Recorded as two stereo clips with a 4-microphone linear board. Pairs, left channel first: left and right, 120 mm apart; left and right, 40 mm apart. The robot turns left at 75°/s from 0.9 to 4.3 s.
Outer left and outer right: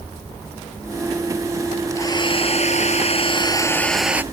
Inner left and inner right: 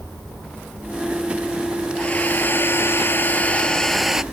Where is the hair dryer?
155° left; by 4.2 s 15° right.